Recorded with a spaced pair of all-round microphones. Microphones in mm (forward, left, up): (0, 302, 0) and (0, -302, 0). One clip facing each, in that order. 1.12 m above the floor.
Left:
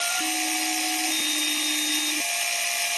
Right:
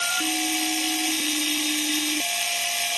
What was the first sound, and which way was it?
A machine running, 55° right (ahead or behind).